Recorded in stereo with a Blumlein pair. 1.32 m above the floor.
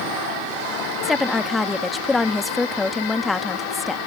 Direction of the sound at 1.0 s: 10° left.